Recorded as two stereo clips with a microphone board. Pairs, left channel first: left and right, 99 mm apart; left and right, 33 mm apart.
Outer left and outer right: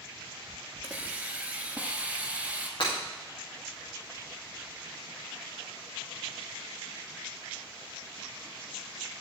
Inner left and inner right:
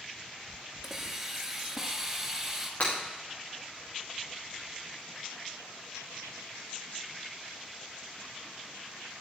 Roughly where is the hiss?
Centre.